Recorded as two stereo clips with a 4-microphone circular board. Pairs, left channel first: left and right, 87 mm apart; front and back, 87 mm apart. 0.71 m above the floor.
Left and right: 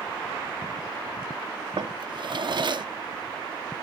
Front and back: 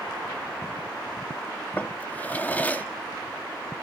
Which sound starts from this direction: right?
A drawer, at 1.8 s.